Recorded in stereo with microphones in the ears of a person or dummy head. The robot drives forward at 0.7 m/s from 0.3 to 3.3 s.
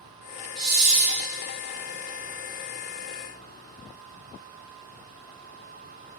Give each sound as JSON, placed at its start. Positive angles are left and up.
{"t": 0.6, "sound": "a hiss", "side_deg": -55, "distance_m": 1.3}